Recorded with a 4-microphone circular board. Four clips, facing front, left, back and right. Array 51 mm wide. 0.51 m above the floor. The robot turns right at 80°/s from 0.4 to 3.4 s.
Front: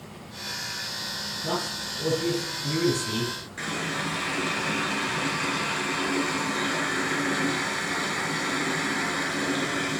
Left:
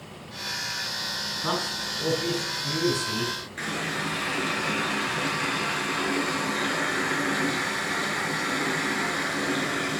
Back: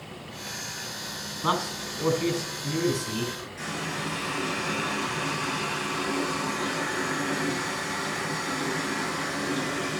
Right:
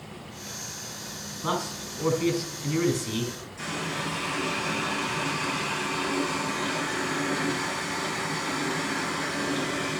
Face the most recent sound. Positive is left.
turn(degrees=55)